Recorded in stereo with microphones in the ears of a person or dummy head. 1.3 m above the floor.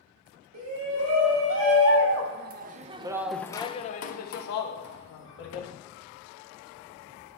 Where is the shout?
80° right, 2.0 m; by 5.7 s 70° left (ahead or behind), 1.8 m.